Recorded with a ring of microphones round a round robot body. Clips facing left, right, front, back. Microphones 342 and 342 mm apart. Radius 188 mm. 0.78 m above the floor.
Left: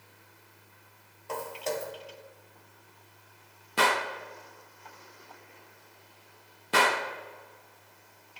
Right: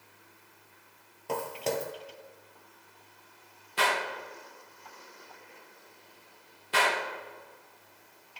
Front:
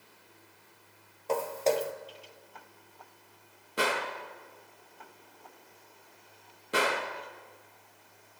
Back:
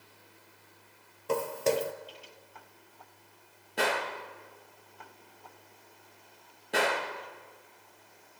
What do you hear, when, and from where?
1.3 s footsteps: 120° right, 1.0 m
3.8 s a gunshot: 80° left, 1.0 m